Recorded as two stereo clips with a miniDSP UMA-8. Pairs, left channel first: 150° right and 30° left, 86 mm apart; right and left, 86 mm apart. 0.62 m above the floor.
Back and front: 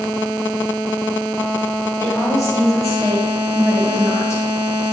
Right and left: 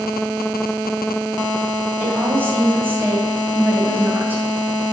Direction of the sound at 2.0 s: 155° left.